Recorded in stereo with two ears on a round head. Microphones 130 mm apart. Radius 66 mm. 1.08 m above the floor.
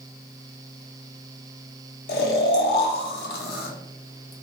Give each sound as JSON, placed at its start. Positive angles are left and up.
{"t": 2.1, "sound": "snoring", "side_deg": 75, "distance_m": 0.6}